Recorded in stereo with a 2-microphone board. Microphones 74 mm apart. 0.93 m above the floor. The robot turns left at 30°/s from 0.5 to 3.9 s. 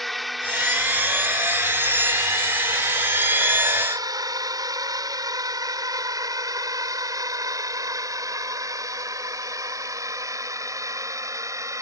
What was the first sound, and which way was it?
A drone, centre (ahead or behind).